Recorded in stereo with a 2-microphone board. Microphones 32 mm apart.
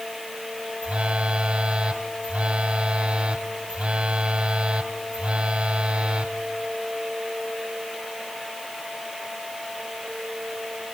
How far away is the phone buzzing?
About 2 m.